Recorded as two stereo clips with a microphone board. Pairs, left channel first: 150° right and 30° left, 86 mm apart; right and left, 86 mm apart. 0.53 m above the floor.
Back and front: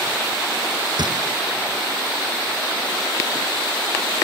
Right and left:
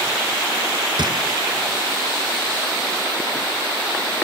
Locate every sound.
1.0 s a gunshot: 60° left